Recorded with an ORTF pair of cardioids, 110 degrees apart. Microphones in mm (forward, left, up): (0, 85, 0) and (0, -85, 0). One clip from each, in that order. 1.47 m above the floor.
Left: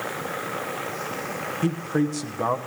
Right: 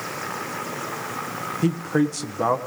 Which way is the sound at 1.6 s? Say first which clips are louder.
Right 3 dB; 15° right.